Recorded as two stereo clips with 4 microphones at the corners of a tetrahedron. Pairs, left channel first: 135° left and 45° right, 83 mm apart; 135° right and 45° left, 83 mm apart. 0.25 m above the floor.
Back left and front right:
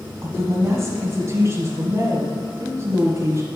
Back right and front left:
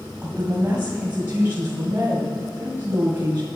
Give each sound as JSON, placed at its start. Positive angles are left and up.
{"t": 0.2, "sound": "a woman speaking", "azimuth_deg": -10, "distance_m": 1.6}